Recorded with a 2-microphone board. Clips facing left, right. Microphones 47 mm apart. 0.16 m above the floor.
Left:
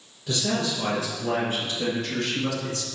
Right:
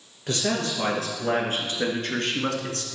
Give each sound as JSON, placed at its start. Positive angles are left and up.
{"t": 0.3, "sound": "a man speaking", "side_deg": -50, "distance_m": 3.0}